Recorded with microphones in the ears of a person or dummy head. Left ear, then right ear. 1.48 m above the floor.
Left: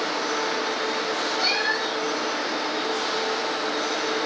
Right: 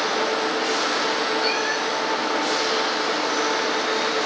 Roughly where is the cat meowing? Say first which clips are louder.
Right 1 dB; left.